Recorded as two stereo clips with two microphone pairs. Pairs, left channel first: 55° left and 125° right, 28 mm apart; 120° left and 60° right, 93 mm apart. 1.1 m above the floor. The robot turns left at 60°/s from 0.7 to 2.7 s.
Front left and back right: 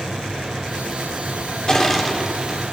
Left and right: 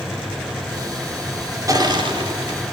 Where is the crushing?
10° right, 3.5 m; by 2.7 s 70° right, 3.5 m.